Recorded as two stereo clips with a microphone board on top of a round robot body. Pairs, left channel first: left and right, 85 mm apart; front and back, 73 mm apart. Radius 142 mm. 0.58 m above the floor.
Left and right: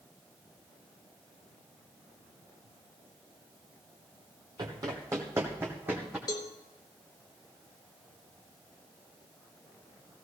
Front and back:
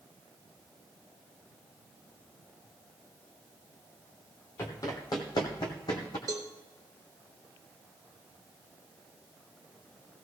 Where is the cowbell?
135° left, 0.6 m.